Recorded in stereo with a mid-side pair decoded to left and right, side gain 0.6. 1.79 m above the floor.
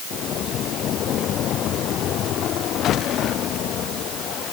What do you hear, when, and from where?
Only background noise.